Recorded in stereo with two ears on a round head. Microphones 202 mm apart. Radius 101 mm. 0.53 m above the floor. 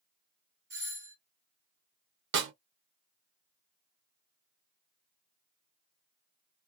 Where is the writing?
I don't hear writing.